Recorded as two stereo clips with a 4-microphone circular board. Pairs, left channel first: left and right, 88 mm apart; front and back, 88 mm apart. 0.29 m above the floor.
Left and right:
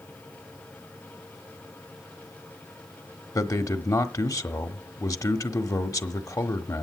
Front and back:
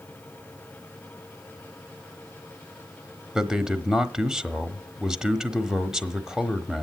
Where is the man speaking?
100° left, 1.1 m.